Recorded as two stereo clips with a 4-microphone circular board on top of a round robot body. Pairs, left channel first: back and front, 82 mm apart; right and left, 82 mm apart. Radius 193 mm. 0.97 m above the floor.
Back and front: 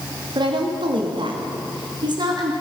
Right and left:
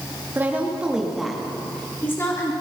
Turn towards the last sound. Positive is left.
turn(degrees=-35)